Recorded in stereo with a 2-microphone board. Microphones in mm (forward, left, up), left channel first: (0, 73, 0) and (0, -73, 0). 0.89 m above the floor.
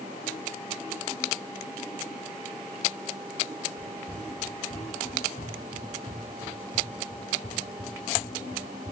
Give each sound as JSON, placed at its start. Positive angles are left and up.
{"t": 3.8, "sound": "running footsteps", "side_deg": 65, "distance_m": 8.5}